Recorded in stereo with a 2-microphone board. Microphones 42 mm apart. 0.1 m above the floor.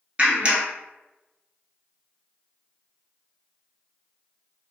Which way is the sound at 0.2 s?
25° right (ahead or behind).